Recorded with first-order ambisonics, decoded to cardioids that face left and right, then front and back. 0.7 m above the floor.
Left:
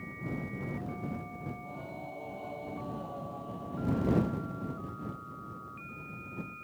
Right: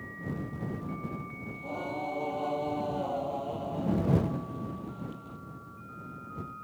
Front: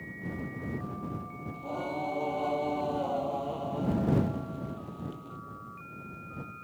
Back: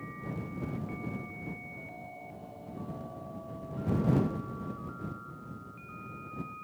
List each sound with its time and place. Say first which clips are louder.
1.5 s singing: right 7 dB, front 9 dB; 35° right